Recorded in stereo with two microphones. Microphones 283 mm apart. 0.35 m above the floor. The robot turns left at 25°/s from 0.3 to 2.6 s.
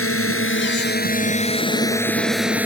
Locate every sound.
0.0 s a drone: 50° left; by 2.7 s 5° right